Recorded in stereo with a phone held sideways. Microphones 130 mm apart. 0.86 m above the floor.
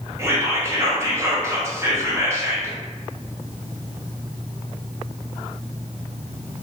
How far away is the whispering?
About 0.9 m.